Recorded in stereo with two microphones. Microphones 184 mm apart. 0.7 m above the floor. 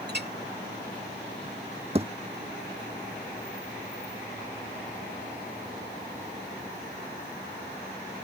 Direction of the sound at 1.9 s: 30° right (ahead or behind).